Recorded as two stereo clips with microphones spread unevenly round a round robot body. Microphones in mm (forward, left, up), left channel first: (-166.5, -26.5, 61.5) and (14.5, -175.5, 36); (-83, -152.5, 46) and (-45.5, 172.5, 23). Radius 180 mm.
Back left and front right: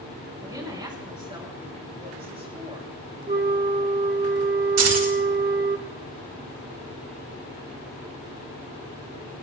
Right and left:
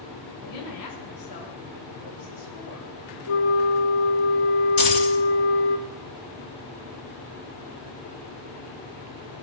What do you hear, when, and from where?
0.4 s a woman speaking: 115° right, 6.5 m; by 2.9 s 105° right, 9 m
3.3 s a flute: 90° right, 2.5 m
4.8 s keys jangling: 30° right, 3 m